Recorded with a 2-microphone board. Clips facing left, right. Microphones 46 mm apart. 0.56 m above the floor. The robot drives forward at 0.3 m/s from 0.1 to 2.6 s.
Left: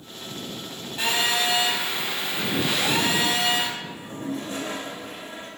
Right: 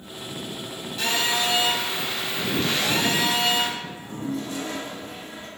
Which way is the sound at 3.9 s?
45° left (ahead or behind).